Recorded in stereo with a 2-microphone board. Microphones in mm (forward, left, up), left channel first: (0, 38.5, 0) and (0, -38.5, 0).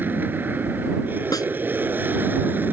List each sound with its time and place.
0.0 s an aircraft: 25° right (ahead or behind)
1.3 s a snare drum: 55° left (ahead or behind)